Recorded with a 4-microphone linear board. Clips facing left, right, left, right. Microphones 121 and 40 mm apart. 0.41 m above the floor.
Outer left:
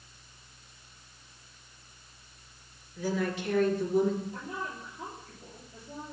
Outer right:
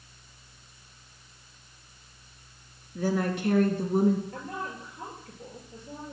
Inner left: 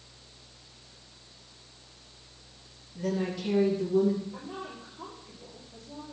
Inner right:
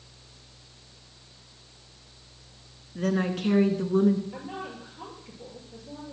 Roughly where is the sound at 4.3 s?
Right.